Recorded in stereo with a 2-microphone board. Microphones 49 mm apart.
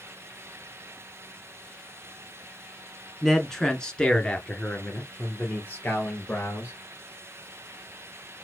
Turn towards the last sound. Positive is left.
turn(degrees=40)  # may be behind; listen again after turning